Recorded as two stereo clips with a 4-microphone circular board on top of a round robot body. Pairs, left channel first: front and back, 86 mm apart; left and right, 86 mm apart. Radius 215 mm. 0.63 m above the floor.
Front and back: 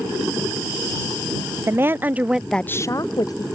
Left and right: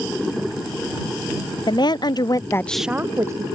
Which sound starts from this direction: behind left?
A woman speaking, at 1.7 s.